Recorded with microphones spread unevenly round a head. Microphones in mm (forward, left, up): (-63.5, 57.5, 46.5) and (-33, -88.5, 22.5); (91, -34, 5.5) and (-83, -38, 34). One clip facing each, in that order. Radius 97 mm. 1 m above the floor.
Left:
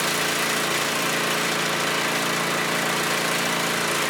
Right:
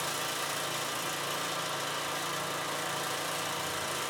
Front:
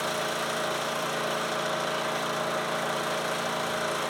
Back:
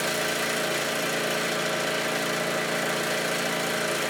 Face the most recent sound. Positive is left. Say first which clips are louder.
# left 11 dB, back 2 dB
turn(degrees=110)